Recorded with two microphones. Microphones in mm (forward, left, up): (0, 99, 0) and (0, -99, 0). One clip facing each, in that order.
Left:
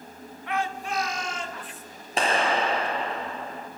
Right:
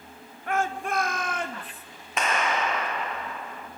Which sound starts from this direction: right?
A shout, at 0.5 s.